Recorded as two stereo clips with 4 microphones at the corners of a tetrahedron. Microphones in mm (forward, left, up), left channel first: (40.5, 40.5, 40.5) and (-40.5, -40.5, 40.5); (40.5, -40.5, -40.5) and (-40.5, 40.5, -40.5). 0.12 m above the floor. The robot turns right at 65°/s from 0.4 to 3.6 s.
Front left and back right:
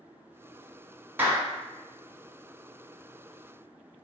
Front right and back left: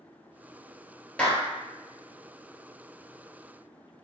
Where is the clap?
105° right, 0.9 m; by 1.4 s 90° right, 0.9 m.